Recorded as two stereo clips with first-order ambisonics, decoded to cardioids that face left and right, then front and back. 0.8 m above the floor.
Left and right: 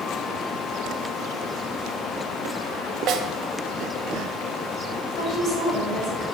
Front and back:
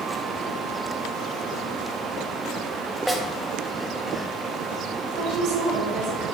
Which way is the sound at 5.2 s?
150° left.